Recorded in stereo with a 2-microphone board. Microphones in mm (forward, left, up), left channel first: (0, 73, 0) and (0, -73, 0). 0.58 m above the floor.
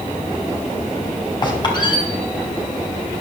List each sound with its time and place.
1.4 s a squeak: 30° left (ahead or behind), 2.5 m